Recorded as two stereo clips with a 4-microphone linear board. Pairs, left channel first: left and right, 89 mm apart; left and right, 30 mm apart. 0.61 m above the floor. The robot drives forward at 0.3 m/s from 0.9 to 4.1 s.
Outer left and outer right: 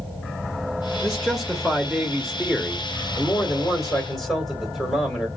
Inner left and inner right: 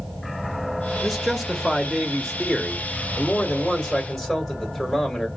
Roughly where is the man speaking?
Centre.